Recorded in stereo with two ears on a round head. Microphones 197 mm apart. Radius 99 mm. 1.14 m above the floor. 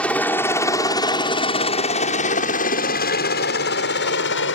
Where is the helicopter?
5° left (ahead or behind); by 4.6 s 60° left (ahead or behind).